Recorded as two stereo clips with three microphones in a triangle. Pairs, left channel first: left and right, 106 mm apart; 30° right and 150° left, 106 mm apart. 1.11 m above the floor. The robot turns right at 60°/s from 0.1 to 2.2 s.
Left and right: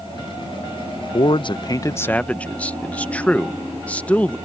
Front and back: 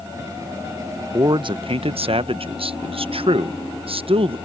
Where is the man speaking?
100° left; by 4.4 s 165° left.